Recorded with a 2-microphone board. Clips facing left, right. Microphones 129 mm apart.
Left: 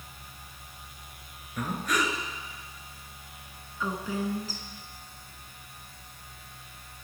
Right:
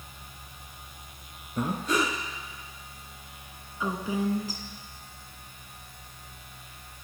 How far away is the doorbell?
No doorbell in this recording.